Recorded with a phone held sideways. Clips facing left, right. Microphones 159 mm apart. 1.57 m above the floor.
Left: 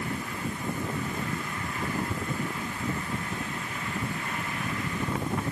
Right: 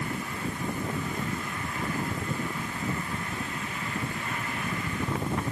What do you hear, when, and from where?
Only background noise.